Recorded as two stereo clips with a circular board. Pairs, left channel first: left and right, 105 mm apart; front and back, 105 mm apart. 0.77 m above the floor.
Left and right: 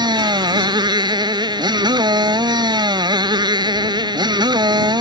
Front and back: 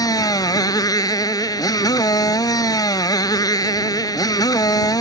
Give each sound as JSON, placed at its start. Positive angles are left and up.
{"t": 0.0, "sound": "a motorcycle", "azimuth_deg": -50}